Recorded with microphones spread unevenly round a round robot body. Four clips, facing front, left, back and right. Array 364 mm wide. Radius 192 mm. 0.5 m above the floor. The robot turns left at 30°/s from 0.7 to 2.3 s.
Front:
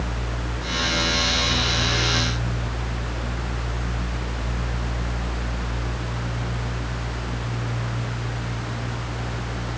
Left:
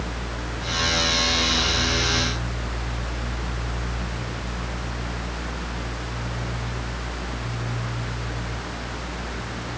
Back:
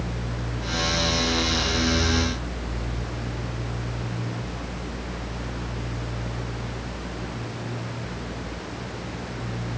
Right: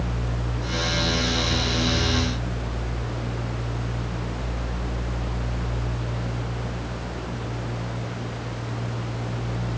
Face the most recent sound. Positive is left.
No sound to turn to.